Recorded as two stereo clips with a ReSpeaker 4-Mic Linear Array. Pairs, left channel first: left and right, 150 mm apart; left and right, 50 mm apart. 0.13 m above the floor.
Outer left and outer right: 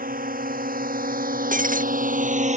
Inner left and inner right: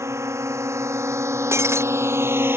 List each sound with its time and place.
0.0 s a drone: 75° right (ahead or behind); by 2.6 s 50° right (ahead or behind)
1.5 s breaking glass: 65° right (ahead or behind)